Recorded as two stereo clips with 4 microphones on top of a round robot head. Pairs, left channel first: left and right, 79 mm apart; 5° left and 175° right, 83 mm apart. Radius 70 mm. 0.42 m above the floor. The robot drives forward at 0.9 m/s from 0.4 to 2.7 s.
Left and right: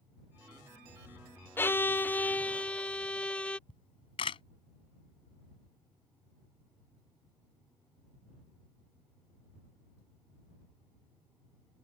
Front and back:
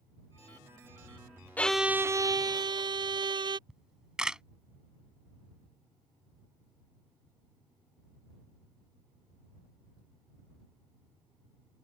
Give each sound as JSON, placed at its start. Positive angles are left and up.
{"t": 1.6, "sound": "a violin", "azimuth_deg": 55}
{"t": 3.7, "sound": "a camera shutter", "azimuth_deg": 105}